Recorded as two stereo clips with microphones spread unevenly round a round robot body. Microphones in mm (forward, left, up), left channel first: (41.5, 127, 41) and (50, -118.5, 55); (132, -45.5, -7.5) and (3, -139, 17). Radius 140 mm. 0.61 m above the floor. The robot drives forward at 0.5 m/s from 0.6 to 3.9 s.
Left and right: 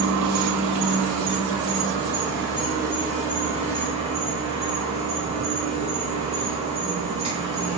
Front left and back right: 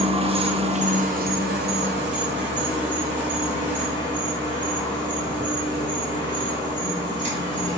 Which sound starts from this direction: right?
An insect, at 0.0 s.